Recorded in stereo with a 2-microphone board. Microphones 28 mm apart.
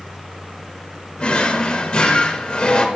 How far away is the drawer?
About 0.9 m.